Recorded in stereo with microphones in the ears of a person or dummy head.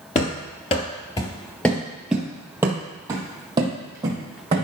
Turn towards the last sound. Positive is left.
turn(degrees=-25)  # may be behind; listen again after turning